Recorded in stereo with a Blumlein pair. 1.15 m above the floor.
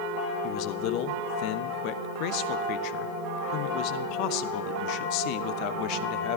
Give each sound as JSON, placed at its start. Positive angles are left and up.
{"t": 0.4, "sound": "a man speaking", "azimuth_deg": 40, "distance_m": 0.8}